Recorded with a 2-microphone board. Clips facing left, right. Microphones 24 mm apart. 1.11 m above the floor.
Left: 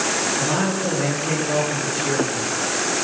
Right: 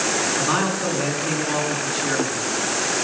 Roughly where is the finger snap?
No finger snap in this recording.